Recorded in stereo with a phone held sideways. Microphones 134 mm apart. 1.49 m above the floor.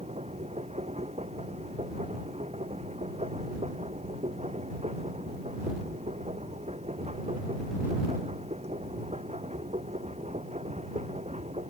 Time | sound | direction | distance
0.0 | a machine running | 55° right (ahead or behind) | ?